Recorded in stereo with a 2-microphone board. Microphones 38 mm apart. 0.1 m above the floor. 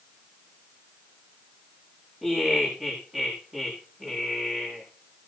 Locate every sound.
2.2 s laughter: 15° right (ahead or behind), 7.5 m